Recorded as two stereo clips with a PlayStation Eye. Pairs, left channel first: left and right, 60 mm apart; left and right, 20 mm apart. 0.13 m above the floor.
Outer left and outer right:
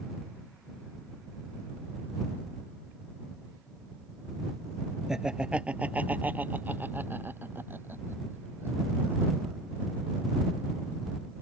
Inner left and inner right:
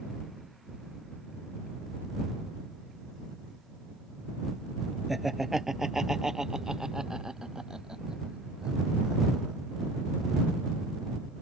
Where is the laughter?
10° right (ahead or behind); by 9.6 s 40° right (ahead or behind).